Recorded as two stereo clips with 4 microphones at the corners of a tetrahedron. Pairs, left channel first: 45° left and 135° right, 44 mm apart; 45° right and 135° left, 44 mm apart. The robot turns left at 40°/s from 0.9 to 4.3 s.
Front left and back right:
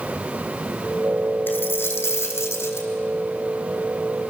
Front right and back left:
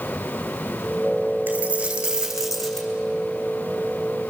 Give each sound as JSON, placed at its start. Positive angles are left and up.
{"t": 1.5, "sound": "a dropped coin", "azimuth_deg": 90, "distance_m": 3.5}